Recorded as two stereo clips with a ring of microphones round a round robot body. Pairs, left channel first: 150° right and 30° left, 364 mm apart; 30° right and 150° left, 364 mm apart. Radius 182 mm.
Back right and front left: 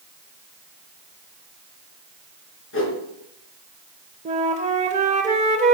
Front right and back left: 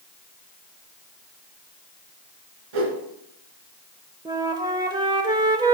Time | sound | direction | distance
2.7 | a whoosh | 155° left | 3 m
4.2 | a flute | 85° left | 0.9 m